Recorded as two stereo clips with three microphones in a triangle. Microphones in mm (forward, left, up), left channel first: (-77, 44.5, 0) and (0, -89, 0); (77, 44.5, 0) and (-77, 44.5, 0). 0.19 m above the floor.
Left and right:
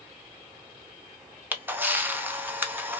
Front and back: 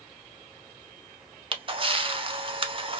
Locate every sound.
1.5 s a camera shutter: 135° right, 0.6 m